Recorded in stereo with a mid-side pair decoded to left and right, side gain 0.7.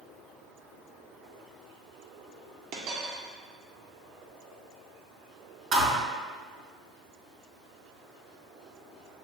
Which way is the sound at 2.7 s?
55° right.